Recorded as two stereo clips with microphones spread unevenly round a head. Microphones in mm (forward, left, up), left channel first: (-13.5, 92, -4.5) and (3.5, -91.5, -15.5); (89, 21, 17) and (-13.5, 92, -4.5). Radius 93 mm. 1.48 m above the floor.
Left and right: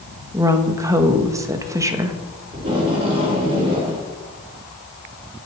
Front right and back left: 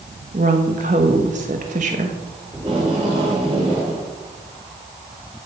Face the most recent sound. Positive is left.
turn(degrees=-145)